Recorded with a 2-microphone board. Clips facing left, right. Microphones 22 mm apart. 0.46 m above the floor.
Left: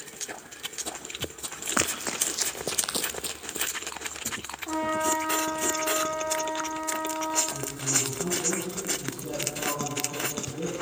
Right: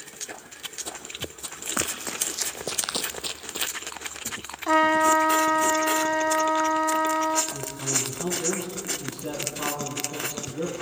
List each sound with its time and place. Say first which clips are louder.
1.8 s running footsteps: left 2 dB; 15° left (ahead or behind), 1.2 m; by 3.7 s 45° right (ahead or behind), 0.6 m
4.7 s a trumpet: right 8 dB; 70° right (ahead or behind), 1.1 m
7.5 s a man speaking: even; 45° right (ahead or behind), 4 m